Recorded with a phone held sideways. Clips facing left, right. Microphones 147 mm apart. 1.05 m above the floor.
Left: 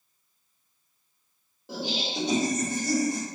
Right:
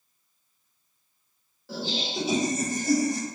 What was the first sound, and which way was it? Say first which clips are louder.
Laughter: even; 20° left (ahead or behind).